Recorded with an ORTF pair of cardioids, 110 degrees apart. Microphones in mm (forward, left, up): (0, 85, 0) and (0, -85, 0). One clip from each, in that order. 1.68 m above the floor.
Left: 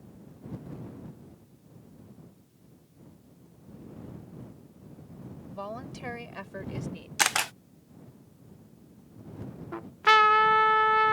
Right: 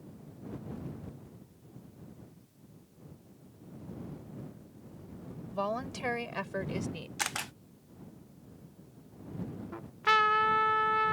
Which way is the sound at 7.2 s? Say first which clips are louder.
Left 10 dB; 40° left.